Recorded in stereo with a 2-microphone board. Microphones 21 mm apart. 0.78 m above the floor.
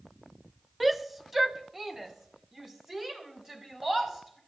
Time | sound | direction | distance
0.8 | a shout | centre (ahead or behind) | 0.8 m